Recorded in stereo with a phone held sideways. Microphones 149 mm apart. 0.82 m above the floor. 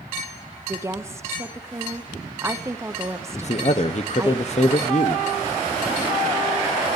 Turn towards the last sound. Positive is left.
turn(degrees=50)  # may be behind; listen again after turning